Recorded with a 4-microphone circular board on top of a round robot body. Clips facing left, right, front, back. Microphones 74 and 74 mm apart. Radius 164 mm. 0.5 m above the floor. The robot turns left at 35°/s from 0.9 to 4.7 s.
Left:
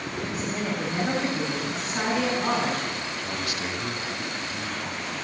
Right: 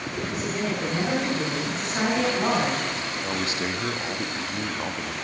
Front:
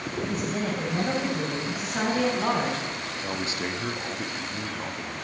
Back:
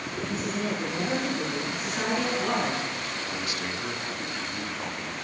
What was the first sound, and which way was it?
A woman speaking, 15° left.